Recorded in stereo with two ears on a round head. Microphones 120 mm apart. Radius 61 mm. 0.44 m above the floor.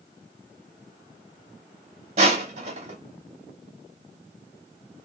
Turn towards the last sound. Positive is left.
turn(degrees=-55)  # may be behind; listen again after turning